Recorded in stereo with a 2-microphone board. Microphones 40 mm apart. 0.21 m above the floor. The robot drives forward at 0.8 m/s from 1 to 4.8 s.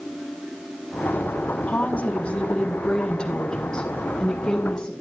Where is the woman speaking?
40° left (ahead or behind), 1.5 m; by 4.9 s 15° left (ahead or behind), 3.5 m.